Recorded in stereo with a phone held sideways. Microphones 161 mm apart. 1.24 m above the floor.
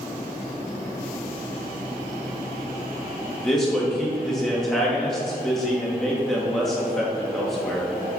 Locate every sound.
3.4 s a man speaking: centre (ahead or behind), 2.5 m